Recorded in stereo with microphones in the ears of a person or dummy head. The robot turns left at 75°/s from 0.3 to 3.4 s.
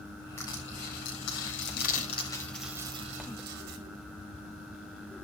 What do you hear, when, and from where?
0.4 s crushing: 5° left (ahead or behind), 4.5 m; by 3.8 s 50° right (ahead or behind), 4.5 m